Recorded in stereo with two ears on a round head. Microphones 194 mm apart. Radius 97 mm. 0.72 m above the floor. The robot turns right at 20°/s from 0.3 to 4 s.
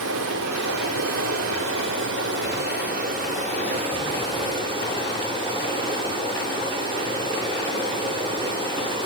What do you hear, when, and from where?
0.0 s running water: 95° right, 3 m; by 9.1 s 25° right, 3 m